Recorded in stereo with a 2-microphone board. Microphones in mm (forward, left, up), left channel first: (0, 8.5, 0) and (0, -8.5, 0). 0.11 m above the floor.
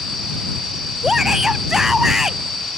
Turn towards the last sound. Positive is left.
turn(degrees=-25)  # may be behind; listen again after turning